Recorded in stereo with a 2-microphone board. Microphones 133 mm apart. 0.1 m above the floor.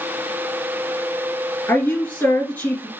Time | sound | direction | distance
1.7 | a woman speaking | 10° left (ahead or behind) | 2 m